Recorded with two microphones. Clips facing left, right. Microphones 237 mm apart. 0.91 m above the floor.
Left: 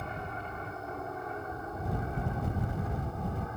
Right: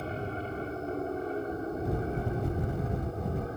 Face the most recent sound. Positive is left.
turn(degrees=-35)  # may be behind; listen again after turning